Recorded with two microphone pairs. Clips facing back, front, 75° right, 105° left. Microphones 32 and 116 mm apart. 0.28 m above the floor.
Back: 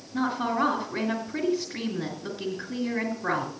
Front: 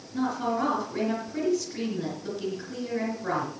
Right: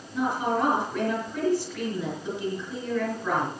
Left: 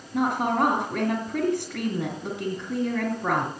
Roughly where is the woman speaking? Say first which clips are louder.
Back 1 dB, left 2 dB; behind left.